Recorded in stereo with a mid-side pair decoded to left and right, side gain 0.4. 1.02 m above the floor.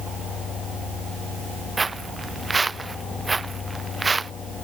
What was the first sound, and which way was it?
Footsteps, 30° right.